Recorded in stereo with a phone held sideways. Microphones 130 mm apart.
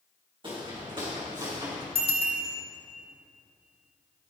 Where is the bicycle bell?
45° right (ahead or behind), 4.5 m.